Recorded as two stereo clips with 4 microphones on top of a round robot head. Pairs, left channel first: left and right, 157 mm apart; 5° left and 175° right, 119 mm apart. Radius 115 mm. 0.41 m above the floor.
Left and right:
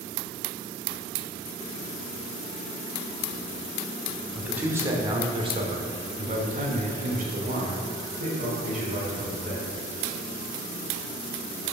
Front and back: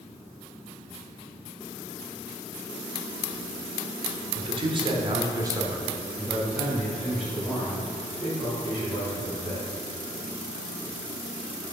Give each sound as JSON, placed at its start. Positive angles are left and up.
{"t": 4.3, "sound": "a man speaking", "azimuth_deg": -170, "distance_m": 1.1}